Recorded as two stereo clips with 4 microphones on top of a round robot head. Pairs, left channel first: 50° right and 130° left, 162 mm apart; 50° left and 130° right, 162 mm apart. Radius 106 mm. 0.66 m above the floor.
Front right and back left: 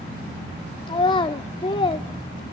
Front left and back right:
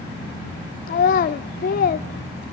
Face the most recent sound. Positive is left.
turn(degrees=10)